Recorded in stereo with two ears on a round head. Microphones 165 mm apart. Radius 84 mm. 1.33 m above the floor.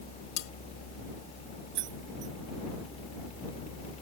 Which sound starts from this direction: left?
Cutlery clinking, at 0.4 s.